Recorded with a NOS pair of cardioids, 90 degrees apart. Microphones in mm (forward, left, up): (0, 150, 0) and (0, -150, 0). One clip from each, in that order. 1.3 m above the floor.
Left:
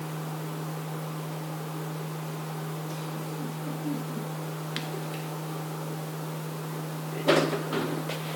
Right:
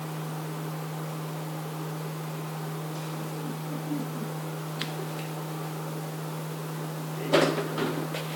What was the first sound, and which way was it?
Only background noise.